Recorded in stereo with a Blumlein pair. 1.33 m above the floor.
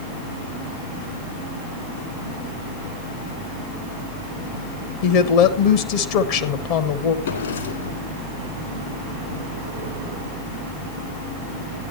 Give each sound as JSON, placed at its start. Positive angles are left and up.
{"t": 5.0, "sound": "a woman speaking", "azimuth_deg": 45, "distance_m": 1.1}
{"t": 7.2, "sound": "a drawer", "azimuth_deg": 65, "distance_m": 2.5}